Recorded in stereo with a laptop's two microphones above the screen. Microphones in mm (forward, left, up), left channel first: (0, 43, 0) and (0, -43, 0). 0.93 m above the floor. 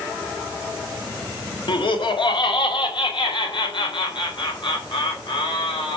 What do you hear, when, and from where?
1.7 s laughter: 70° left (ahead or behind), 1.7 m; by 6.0 s 65° left (ahead or behind), 4.5 m